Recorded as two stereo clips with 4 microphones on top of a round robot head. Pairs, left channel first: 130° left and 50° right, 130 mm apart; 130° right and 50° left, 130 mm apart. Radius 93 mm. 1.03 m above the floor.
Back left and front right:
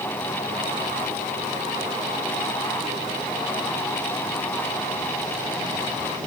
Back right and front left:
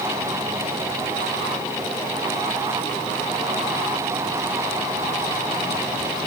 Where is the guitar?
No guitar in this recording.